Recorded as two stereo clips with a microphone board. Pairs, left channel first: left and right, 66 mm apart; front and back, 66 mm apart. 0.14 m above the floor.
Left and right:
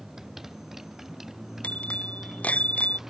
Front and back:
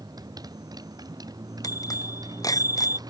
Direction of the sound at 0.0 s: 175° right.